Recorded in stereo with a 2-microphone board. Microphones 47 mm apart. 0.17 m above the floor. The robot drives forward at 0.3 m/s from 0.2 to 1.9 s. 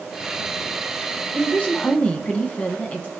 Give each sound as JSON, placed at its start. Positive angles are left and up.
{"t": 1.3, "sound": "a woman speaking", "side_deg": 30, "distance_m": 1.1}